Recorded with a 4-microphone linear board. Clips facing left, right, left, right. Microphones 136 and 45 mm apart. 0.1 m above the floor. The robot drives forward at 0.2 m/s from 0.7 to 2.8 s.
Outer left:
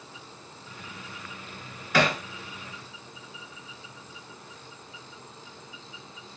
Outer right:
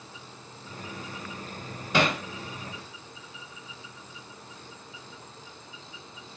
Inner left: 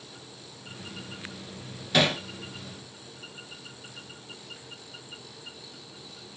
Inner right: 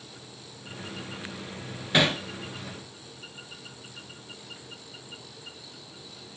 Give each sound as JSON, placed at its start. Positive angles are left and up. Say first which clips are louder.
{"t": 1.9, "sound": "hammering", "louder": "outer left 1 dB, even", "side_deg": -25, "distance_m": 1.0}